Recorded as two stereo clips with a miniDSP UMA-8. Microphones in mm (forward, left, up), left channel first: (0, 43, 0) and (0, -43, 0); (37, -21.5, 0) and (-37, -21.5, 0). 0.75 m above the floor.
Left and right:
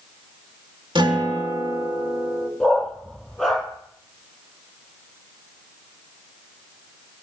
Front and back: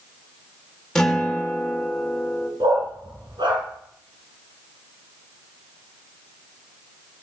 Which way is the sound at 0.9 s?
80° right.